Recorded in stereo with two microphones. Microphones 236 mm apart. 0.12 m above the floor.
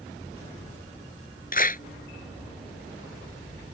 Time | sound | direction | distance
1.5 | a clap | 40° left (ahead or behind) | ?